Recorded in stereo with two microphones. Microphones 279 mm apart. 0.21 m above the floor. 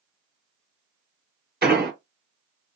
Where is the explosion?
35° right (ahead or behind), 1.8 m.